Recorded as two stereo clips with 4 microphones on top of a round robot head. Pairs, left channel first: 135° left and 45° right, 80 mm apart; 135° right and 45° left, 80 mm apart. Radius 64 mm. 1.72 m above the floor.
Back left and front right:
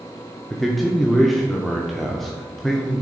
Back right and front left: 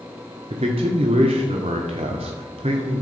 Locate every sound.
0.5 s a man speaking: 50° left, 0.7 m